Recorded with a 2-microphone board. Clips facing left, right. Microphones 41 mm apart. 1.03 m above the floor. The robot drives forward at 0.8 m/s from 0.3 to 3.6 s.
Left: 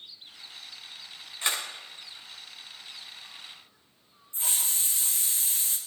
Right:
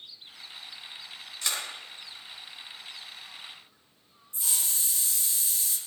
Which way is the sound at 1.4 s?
25° left (ahead or behind).